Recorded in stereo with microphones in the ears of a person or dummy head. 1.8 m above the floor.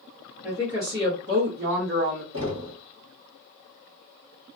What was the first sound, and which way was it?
A woman speaking, 10° right (ahead or behind).